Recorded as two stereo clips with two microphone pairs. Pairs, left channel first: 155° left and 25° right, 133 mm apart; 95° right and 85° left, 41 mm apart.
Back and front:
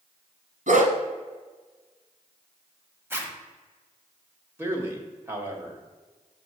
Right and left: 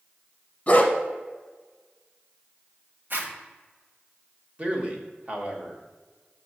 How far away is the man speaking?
About 1.3 m.